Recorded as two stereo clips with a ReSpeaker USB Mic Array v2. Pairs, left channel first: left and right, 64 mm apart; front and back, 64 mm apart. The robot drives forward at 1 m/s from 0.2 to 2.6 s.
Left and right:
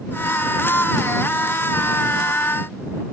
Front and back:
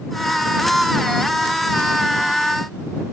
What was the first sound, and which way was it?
Only background noise.